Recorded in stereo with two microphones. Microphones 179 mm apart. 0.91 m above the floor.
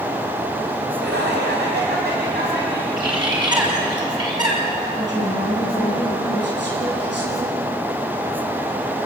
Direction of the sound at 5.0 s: 85° right.